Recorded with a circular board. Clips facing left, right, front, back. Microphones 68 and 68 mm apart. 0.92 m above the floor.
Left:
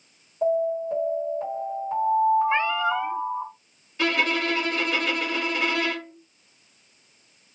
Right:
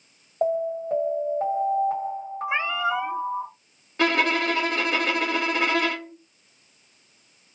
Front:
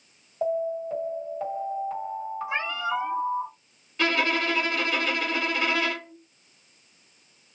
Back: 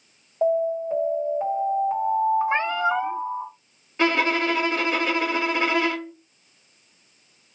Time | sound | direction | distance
0.4 | an alarm | 110° right | 2 m
2.5 | a cat meowing | 165° right | 0.6 m
4.0 | a violin | 120° right | 1.7 m